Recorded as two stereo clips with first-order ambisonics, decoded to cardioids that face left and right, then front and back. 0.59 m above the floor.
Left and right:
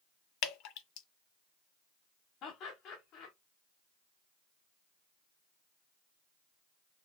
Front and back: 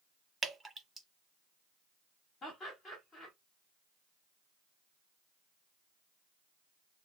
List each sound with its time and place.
0.4 s dripping: 100° left, 0.9 m
2.4 s laughter: 60° left, 1.6 m